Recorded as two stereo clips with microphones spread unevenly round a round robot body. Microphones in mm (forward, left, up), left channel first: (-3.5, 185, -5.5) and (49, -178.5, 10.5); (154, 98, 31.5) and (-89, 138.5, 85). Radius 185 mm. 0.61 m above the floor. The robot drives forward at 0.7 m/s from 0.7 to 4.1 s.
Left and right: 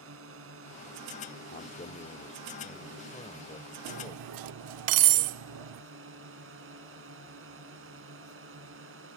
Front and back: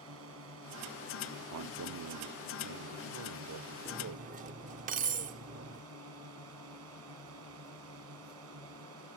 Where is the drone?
140° right.